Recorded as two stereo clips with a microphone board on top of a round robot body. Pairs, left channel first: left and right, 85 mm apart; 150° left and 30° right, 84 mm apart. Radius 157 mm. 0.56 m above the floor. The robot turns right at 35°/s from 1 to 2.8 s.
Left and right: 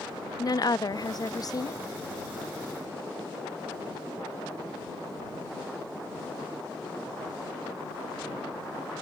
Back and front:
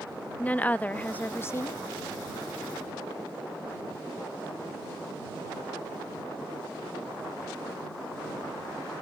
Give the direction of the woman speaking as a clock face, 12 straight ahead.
9 o'clock.